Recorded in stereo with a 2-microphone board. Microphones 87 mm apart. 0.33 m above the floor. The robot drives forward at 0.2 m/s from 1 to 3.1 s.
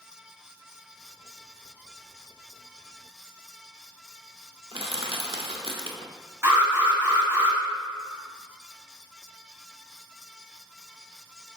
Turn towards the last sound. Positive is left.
turn(degrees=-30)  # may be behind; listen again after turning